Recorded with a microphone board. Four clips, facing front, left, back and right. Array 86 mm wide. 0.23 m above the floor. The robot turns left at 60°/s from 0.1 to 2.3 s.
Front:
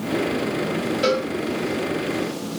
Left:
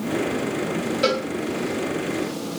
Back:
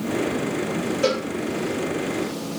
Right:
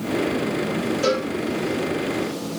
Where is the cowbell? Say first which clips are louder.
Even, front 2 dB; 65° left, 0.9 m; by 1.3 s 55° left, 0.9 m.